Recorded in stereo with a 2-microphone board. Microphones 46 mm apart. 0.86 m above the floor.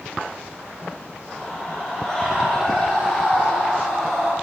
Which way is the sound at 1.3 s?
10° left (ahead or behind).